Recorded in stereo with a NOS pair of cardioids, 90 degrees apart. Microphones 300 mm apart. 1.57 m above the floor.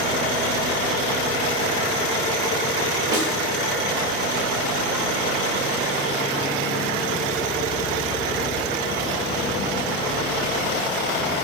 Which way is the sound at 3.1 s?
50° right.